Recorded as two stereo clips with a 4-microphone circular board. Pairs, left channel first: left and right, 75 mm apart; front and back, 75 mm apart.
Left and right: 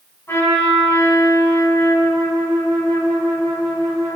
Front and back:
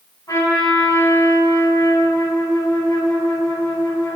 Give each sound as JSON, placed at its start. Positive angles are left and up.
{"t": 0.3, "sound": "a trumpet", "azimuth_deg": 40, "distance_m": 3.5}